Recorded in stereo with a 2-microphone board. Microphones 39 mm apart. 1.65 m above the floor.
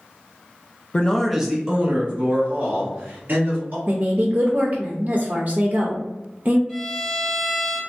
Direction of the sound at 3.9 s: 50° right (ahead or behind).